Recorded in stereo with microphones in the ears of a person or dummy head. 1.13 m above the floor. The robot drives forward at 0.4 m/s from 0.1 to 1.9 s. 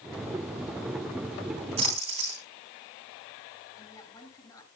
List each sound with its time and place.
1.8 s a splash: 30° right (ahead or behind), 3.5 m
3.8 s a woman speaking: 25° left (ahead or behind), 8.5 m